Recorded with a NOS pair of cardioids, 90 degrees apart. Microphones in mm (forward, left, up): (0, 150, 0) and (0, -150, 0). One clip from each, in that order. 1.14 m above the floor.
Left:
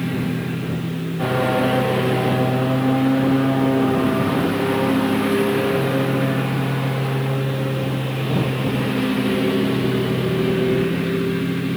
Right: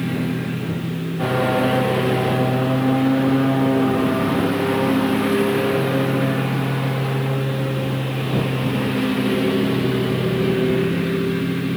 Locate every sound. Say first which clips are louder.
0.0 s a lawn mower: even; 5° right